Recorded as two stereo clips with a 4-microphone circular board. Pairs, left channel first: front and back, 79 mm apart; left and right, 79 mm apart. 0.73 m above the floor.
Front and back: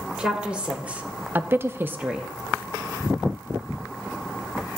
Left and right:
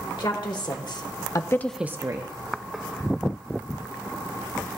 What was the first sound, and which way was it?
A woman speaking, 105° left.